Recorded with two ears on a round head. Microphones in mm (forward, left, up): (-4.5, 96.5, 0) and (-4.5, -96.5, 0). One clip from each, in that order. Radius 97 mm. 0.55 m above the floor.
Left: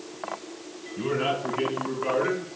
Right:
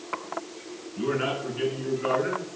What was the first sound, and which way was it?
A man speaking, 25° left (ahead or behind).